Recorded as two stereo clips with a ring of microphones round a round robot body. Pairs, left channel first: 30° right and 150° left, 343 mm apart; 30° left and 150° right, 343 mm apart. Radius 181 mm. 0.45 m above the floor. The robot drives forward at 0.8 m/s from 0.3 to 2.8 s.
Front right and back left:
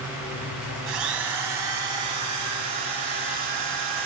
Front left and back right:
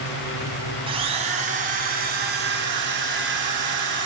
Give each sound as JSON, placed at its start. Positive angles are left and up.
{"t": 0.9, "sound": "a drill", "azimuth_deg": 135, "distance_m": 2.5}